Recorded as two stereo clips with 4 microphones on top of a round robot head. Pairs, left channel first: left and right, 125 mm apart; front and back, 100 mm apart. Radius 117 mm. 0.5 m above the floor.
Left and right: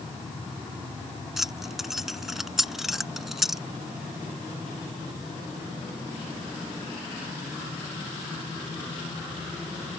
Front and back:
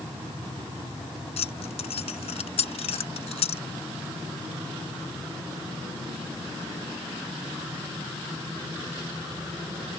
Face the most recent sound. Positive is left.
turn(degrees=0)